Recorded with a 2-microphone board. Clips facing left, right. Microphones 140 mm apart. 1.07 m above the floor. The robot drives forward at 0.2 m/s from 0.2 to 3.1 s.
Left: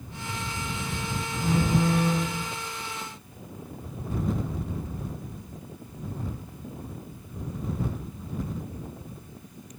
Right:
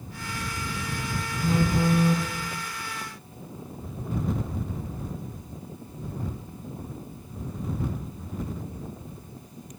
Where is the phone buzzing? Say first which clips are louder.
Even; 60° left (ahead or behind), 0.8 m; by 2.3 s 65° left (ahead or behind), 0.8 m.